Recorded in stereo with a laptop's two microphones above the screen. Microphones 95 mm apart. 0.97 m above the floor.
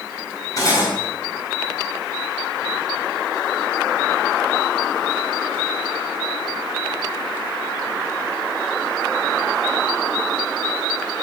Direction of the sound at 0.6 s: 45° left (ahead or behind).